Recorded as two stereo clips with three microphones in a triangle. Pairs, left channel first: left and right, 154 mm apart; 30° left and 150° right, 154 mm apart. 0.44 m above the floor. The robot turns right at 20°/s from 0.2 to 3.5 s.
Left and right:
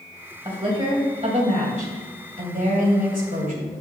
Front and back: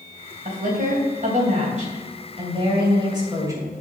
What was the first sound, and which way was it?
A woman speaking, 145° right.